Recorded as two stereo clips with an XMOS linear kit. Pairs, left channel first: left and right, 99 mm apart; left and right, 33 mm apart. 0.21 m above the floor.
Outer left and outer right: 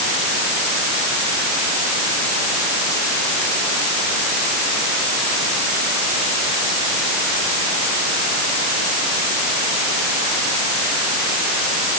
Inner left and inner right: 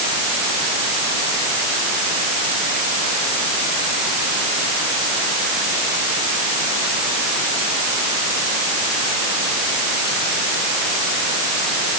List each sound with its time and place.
Only background noise.